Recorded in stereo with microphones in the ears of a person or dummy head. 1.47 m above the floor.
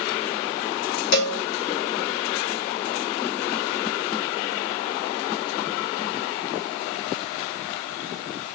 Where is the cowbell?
55° left (ahead or behind), 0.8 m.